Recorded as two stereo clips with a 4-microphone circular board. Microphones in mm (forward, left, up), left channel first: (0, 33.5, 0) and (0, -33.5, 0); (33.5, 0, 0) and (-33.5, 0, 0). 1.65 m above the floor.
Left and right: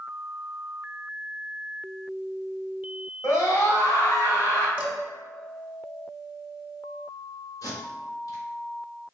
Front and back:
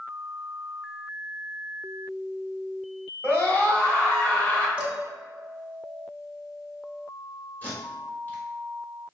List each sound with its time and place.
3.2 s a scream: 60° left, 1.7 m
4.8 s dishes clattering: 130° right, 0.7 m
7.6 s tape being pulled: 65° left, 1.3 m